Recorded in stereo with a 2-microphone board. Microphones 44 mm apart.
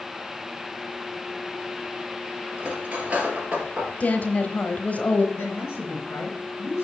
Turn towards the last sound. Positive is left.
turn(degrees=60)  # may be behind; listen again after turning